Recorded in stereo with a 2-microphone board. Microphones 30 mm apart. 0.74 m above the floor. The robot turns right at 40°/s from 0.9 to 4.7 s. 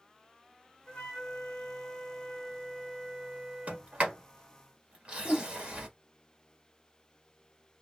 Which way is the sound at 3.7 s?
50° right (ahead or behind).